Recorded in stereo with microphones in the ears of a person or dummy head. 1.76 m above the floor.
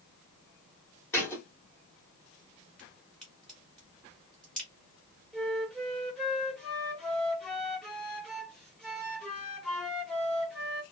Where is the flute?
5° left (ahead or behind), 0.7 m.